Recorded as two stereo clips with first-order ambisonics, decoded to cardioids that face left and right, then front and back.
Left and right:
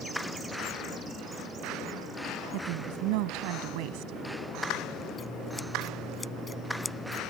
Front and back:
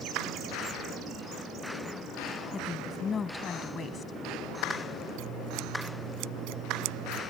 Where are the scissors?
165° left.